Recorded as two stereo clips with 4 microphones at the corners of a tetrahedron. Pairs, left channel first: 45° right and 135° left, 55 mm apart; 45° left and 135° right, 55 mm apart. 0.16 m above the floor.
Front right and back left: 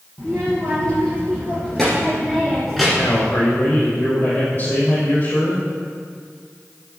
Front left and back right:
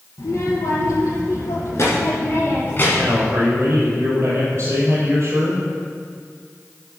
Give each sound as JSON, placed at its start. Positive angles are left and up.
{"t": 0.2, "sound": "a child speaking", "azimuth_deg": 30, "distance_m": 3.0}
{"t": 2.9, "sound": "a man speaking", "azimuth_deg": -90, "distance_m": 4.5}